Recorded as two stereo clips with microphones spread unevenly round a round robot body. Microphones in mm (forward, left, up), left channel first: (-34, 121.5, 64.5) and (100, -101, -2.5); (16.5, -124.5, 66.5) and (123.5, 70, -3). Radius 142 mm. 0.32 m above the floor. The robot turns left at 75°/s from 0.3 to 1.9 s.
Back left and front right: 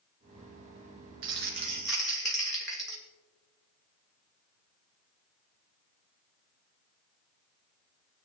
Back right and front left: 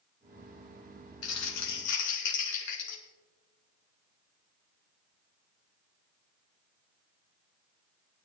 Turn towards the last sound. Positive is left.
turn(degrees=-145)